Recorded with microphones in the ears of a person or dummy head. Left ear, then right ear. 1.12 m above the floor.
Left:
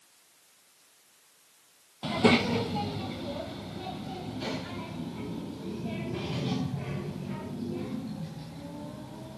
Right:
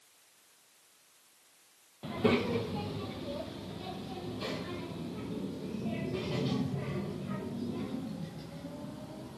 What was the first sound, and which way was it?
A child speaking, 30° left (ahead or behind).